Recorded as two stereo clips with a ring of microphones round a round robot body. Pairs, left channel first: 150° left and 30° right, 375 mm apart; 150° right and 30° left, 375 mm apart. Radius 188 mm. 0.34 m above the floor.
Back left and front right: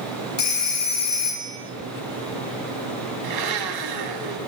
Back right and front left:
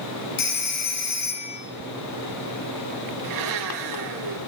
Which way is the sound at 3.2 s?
5° right.